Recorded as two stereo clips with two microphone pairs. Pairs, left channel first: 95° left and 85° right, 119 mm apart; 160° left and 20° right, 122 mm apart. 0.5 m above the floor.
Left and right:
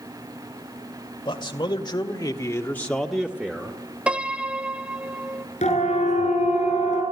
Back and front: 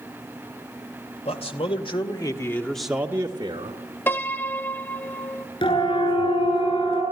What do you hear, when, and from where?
1.2 s a man speaking: 140° left, 2.5 m; by 3.8 s 25° right, 1.8 m
4.1 s a piano: 150° right, 0.7 m
5.6 s a siren: 115° left, 8 m; by 7.0 s 120° left, 9 m